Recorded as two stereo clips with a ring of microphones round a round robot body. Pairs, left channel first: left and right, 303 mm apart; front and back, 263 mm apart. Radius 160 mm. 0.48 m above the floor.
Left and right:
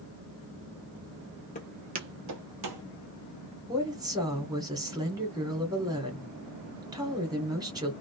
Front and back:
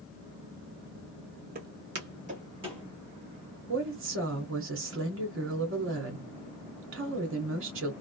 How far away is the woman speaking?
About 1.5 m.